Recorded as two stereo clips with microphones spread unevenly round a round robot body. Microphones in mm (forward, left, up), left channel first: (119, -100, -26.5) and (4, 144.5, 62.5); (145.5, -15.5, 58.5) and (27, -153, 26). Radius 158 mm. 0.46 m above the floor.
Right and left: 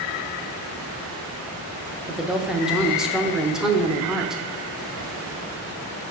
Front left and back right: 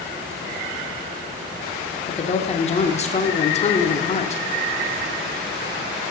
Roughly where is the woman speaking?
Ahead.